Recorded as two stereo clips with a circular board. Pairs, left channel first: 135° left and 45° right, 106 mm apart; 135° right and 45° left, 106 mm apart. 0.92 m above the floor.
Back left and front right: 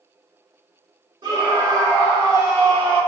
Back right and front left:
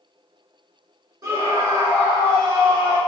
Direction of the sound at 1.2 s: 10° right.